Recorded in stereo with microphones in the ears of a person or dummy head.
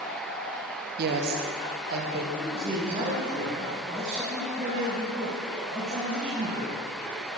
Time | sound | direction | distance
1.0 | a woman speaking | 55° right (ahead or behind) | 0.9 m
2.4 | a man speaking | 35° right (ahead or behind) | 1.9 m